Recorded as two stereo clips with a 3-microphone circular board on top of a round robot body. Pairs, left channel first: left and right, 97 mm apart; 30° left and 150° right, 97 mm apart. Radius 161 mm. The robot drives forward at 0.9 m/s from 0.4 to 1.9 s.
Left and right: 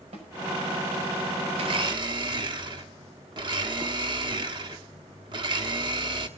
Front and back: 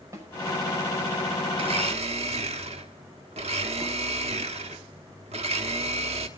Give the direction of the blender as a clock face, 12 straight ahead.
4 o'clock.